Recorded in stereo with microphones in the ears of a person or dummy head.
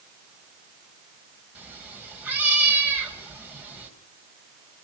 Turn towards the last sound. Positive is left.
turn(degrees=-10)  # may be behind; listen again after turning